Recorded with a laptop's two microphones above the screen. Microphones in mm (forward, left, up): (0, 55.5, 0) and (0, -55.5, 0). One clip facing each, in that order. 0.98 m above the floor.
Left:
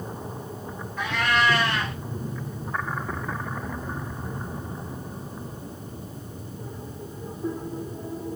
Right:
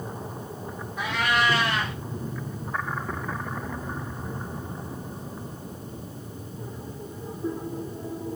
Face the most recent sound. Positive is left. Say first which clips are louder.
# left 1 dB
turn(degrees=-15)  # may be behind; listen again after turning